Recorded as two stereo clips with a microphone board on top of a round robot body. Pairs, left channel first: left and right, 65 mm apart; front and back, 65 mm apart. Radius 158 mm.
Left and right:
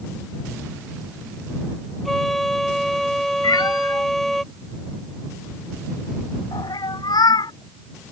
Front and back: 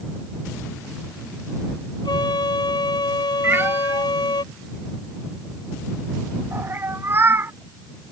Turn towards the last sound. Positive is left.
turn(degrees=120)